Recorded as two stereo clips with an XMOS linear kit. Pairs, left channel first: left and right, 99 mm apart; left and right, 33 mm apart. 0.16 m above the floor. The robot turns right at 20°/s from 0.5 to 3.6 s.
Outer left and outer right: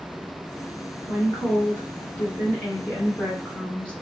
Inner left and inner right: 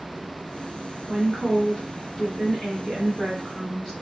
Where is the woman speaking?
110° left, 1.7 m; by 3.9 s 160° left, 1.7 m.